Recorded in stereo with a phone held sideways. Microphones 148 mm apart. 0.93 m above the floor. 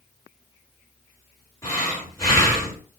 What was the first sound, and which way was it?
Breathing, 20° left (ahead or behind).